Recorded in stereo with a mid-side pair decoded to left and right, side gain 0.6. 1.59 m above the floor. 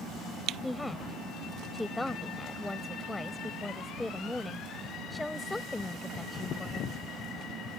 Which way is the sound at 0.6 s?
10° left.